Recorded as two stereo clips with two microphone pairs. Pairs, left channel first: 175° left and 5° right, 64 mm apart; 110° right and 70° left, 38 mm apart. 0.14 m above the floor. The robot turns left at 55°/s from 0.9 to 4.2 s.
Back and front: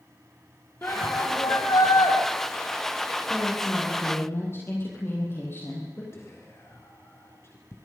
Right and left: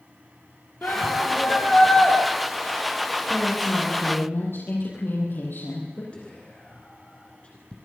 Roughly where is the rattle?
I don't hear a rattle.